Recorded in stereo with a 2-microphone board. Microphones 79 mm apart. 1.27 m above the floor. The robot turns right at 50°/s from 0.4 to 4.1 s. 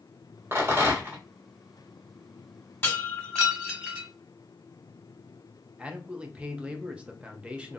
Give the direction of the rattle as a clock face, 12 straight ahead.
3 o'clock.